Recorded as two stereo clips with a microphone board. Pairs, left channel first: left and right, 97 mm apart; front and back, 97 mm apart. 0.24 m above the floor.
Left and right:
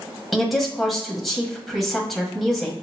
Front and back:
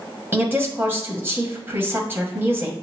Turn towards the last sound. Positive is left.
turn(degrees=180)